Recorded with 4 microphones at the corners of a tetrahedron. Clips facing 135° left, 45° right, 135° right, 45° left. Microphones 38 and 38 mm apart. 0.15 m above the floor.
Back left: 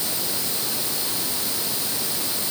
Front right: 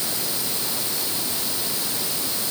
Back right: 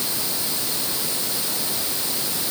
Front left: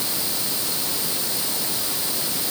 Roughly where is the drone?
I don't hear a drone.